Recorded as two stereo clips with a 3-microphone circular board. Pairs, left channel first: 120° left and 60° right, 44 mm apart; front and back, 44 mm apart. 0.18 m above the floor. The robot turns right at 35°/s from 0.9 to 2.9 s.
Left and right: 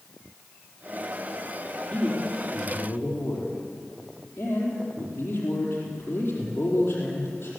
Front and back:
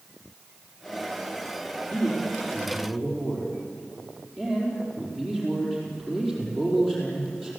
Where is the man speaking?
45° left, 5 m; by 7.5 s 80° left, 5 m.